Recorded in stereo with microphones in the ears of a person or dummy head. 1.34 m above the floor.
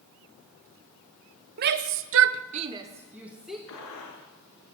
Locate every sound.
1.6 s a shout: 50° right (ahead or behind), 0.9 m; by 3.6 s 5° left (ahead or behind), 1.4 m
3.7 s a gunshot: 80° left, 5.5 m